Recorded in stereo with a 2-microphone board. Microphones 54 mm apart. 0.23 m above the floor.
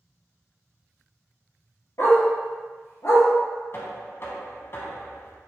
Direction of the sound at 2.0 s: 75° left (ahead or behind).